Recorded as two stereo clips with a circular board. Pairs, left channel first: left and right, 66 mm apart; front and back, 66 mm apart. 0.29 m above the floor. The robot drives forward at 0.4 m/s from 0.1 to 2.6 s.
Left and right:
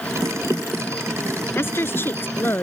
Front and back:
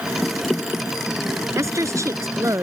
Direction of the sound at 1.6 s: 145° left.